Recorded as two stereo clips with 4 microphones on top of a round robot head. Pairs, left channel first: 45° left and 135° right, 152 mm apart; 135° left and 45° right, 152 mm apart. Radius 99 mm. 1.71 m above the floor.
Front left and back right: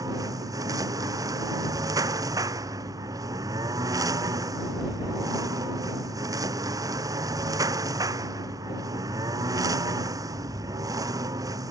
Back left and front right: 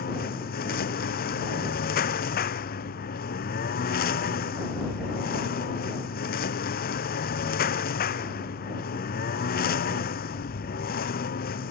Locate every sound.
0.0 s a lawn mower: 160° left